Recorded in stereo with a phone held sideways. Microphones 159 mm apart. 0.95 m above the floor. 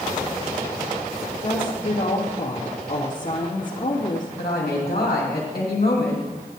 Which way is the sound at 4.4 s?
75° left (ahead or behind).